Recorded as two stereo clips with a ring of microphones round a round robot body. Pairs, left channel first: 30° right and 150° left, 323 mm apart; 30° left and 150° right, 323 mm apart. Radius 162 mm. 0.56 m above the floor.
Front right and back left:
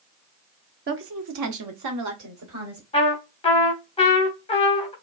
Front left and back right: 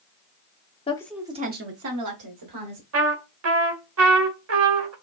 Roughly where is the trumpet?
Right.